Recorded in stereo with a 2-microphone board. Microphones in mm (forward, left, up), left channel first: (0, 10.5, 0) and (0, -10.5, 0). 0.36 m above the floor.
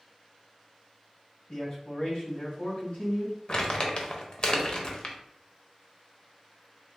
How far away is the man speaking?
About 1.7 m.